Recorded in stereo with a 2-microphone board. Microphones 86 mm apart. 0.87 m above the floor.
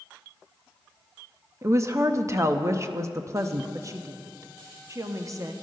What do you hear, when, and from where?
1.6 s a woman speaking: 35° right (ahead or behind), 0.8 m
3.7 s a woman speaking: 40° right (ahead or behind), 1.0 m